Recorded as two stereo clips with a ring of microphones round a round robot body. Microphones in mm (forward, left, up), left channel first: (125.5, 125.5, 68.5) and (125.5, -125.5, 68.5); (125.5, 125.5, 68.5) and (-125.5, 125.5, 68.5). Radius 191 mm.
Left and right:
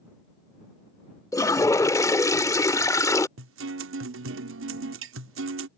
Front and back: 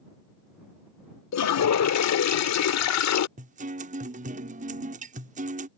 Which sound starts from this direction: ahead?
A toilet flushing, at 1.3 s.